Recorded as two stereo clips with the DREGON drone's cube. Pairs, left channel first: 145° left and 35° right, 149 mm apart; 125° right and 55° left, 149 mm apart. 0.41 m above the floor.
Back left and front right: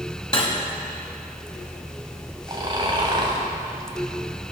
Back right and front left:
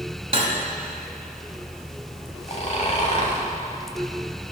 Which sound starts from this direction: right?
Snoring, at 2.5 s.